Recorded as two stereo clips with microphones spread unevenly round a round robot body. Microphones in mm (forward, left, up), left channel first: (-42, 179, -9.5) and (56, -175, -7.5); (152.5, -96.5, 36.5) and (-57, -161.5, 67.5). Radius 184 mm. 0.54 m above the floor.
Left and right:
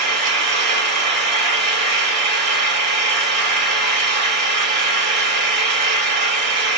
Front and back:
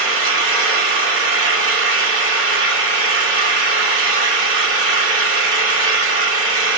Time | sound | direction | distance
0.0 | an engine running | 140° right | 1.0 m